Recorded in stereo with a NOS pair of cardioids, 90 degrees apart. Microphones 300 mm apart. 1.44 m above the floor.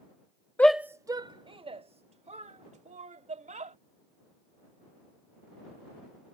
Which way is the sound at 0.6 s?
5° left.